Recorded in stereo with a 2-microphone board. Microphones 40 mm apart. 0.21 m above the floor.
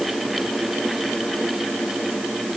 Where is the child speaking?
I don't hear a child speaking.